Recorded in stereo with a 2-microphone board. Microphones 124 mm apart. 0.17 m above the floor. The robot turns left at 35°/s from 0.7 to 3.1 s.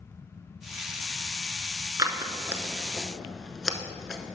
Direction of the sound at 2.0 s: 30° right (ahead or behind).